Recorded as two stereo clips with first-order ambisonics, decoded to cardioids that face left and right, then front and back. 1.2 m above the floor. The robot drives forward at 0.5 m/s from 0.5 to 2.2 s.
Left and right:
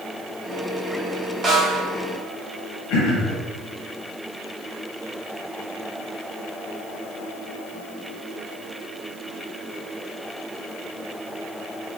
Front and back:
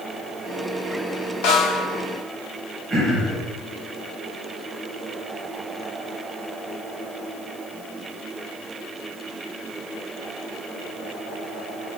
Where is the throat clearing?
105° left, 0.9 m.